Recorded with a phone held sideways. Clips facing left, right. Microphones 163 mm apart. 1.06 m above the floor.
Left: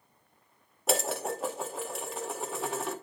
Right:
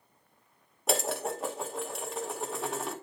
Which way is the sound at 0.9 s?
Centre (ahead or behind).